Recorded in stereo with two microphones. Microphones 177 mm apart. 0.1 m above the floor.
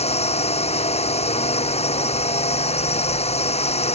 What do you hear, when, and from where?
0.0 s a drone: 35° left (ahead or behind)